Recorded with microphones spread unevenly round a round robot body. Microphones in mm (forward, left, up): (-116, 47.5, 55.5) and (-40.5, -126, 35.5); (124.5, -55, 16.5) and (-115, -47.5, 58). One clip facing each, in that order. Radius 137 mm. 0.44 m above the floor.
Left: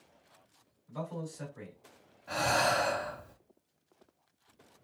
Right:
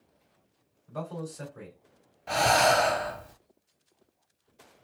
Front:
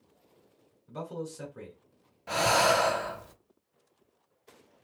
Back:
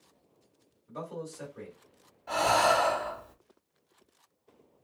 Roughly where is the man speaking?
Ahead right.